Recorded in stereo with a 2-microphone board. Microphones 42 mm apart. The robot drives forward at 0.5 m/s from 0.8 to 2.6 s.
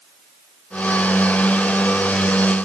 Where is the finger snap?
I don't hear a finger snap.